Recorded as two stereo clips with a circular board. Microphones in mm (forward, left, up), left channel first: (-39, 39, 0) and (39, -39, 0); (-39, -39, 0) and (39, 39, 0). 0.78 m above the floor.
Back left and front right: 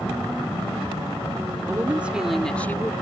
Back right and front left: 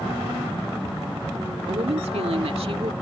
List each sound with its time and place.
1.7 s a woman speaking: 20° left; by 2.9 s 75° left